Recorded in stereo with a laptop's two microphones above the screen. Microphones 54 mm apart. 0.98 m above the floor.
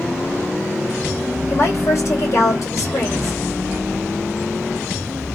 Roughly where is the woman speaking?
Left.